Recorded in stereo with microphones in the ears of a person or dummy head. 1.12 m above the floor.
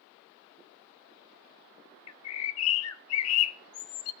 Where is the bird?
80° left, 0.7 m.